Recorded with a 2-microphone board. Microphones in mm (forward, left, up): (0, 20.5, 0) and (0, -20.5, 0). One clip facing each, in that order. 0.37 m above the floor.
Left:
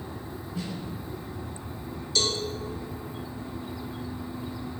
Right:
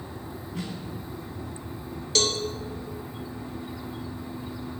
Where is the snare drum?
75° right (ahead or behind), 1.7 m.